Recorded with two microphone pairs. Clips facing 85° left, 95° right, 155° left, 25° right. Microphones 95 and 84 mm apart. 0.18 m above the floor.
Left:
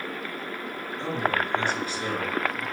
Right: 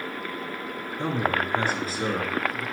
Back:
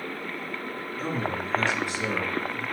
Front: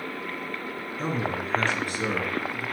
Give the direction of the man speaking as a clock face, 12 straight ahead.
3 o'clock.